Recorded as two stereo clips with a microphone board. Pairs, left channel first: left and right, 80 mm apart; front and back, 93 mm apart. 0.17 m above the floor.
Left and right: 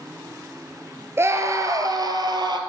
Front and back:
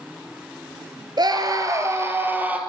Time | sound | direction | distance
1.2 | a scream | 145° right | 2.5 m